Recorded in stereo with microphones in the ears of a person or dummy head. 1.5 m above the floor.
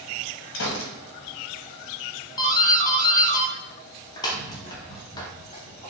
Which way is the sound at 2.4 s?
15° left (ahead or behind).